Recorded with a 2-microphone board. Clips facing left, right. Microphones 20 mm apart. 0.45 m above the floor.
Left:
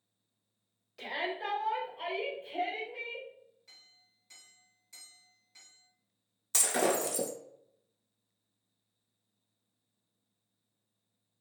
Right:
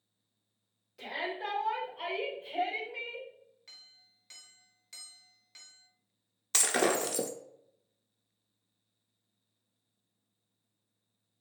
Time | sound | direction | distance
1.0 | a shout | 25° left (ahead or behind) | 1.3 m
3.7 | a clink | 55° right (ahead or behind) | 0.9 m
6.5 | breaking glass | 30° right (ahead or behind) | 0.5 m